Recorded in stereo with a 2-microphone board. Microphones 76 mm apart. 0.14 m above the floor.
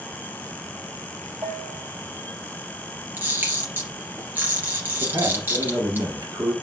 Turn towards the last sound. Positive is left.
turn(degrees=-50)  # may be behind; listen again after turning